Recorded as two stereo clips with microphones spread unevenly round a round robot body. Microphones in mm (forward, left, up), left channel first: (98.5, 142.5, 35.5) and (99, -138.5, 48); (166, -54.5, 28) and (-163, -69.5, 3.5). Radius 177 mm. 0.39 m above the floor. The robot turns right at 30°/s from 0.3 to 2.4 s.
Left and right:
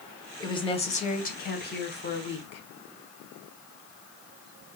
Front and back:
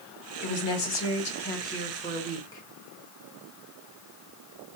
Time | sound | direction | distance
0.4 | a woman speaking | 25° left | 1.2 m